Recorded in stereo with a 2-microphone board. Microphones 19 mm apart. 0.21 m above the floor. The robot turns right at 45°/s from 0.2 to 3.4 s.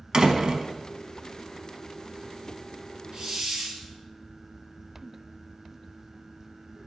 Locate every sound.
0.1 s a door slam: 45° right (ahead or behind), 0.9 m; by 0.7 s 50° right (ahead or behind), 0.9 m
3.1 s a hiss: 55° right (ahead or behind), 1.6 m; by 3.8 s 45° right (ahead or behind), 1.6 m